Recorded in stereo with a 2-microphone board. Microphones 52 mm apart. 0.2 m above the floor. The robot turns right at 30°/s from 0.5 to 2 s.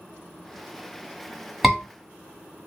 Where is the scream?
5° right (ahead or behind), 1.7 m.